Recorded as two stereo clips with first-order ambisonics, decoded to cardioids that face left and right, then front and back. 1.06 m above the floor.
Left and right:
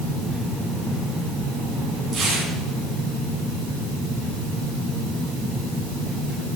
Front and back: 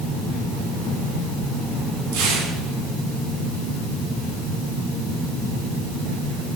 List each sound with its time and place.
2.1 s tearing paper: 170° right, 6.5 m